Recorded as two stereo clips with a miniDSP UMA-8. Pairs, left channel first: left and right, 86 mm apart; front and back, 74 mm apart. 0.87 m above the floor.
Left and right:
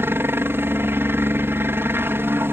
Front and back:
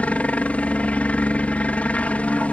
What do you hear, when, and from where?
0.0 s a helicopter: 55° right